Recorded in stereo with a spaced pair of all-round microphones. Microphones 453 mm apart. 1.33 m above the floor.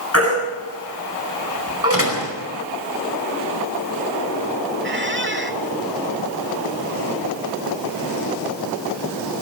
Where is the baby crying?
30° left (ahead or behind), 8 m.